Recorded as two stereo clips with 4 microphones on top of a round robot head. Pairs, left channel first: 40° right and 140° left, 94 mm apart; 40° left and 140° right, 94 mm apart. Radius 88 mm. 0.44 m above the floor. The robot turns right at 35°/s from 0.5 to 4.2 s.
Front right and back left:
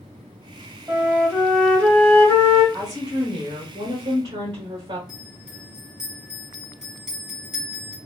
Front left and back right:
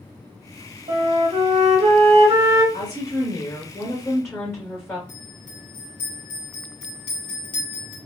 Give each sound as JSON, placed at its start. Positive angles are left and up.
{"t": 0.9, "sound": "a flute", "azimuth_deg": -150, "distance_m": 1.8}
{"t": 2.7, "sound": "a woman speaking", "azimuth_deg": 50, "distance_m": 1.5}
{"t": 5.1, "sound": "a bell", "azimuth_deg": 55, "distance_m": 2.0}